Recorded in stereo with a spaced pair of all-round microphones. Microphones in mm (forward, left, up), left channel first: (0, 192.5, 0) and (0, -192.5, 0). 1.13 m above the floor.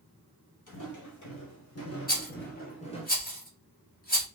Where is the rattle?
25° left (ahead or behind), 1.3 m.